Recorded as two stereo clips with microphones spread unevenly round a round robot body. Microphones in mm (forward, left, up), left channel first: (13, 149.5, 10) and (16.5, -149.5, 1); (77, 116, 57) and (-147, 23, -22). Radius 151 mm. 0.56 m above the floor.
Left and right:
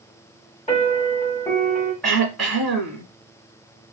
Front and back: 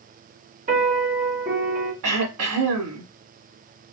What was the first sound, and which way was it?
A piano, 160° left.